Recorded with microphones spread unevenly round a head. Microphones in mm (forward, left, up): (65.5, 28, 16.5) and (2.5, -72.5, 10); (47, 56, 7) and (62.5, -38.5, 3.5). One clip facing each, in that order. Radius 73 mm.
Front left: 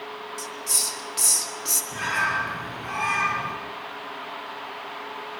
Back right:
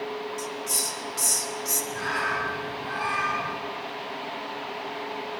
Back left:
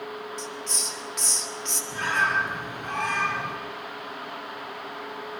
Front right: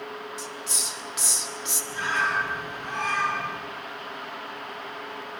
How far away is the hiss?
About 2 m.